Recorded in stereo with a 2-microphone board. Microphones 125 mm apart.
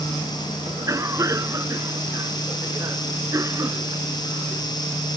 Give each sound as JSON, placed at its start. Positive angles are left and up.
{"t": 0.7, "sound": "a cough", "side_deg": -25}